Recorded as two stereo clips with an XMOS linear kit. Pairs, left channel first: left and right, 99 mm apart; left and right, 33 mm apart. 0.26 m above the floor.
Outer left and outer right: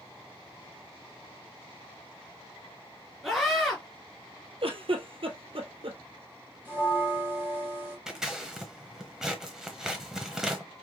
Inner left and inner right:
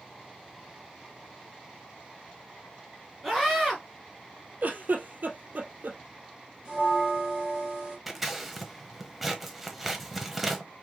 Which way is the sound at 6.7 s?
20° right (ahead or behind).